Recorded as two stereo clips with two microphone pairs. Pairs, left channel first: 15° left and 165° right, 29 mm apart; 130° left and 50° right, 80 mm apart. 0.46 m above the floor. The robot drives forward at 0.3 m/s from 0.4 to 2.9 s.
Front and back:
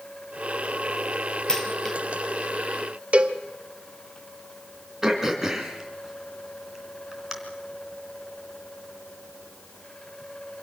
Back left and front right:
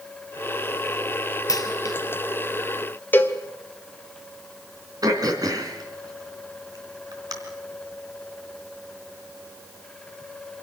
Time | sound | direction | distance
1.5 | a dropped coin | 85° left | 3 m
3.1 | a cowbell | straight behind | 1.5 m
5.0 | throat clearing | 90° right | 3 m